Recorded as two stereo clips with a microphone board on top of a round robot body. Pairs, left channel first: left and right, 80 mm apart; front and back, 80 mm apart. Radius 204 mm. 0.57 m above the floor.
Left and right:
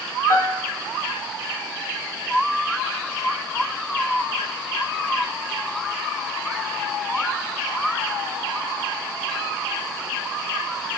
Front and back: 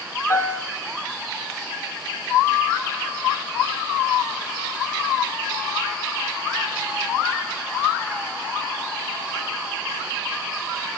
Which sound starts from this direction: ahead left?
A piano, at 0.3 s.